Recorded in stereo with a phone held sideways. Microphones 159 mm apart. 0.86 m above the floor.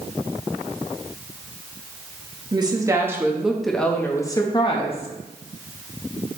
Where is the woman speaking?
25° right (ahead or behind), 1.2 m; by 5.1 s 45° left (ahead or behind), 1.1 m.